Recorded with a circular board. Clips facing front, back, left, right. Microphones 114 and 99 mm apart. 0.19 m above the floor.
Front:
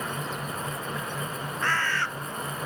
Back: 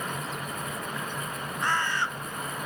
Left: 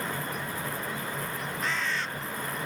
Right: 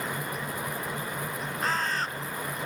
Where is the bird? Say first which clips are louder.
Even, right 4 dB; 115° right, 0.5 m.